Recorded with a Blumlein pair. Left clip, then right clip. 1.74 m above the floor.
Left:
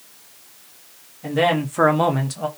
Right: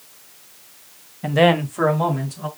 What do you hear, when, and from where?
1.2 s a man speaking: 25° right, 0.8 m; by 2.5 s 60° left, 1.0 m